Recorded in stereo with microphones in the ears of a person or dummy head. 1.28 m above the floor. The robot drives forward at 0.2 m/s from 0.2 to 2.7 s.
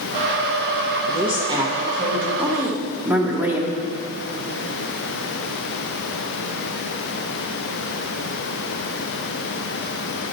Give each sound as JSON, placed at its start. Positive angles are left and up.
{"t": 1.1, "sound": "a woman speaking", "side_deg": -30, "distance_m": 0.9}
{"t": 2.4, "sound": "a woman speaking", "side_deg": -10, "distance_m": 0.8}